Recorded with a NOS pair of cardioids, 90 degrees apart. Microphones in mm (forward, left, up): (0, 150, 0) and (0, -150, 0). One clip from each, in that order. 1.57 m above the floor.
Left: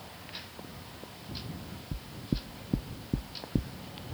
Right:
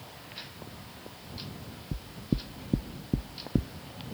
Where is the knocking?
10° right.